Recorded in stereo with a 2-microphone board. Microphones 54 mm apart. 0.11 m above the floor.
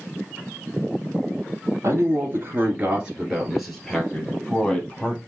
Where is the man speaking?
50° right (ahead or behind), 2 m; by 5.2 s 20° left (ahead or behind), 3.5 m.